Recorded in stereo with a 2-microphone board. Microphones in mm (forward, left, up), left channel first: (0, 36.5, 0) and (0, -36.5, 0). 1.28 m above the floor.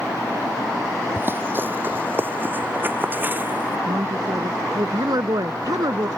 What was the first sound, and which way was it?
Running footsteps, 30° right (ahead or behind).